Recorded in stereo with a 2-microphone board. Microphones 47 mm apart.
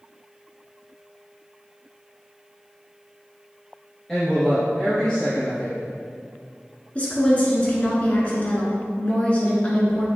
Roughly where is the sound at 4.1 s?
Centre.